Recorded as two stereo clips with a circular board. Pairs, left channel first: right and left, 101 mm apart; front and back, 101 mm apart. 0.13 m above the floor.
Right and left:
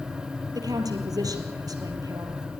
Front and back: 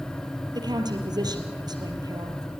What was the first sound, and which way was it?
A woman speaking, 140° left.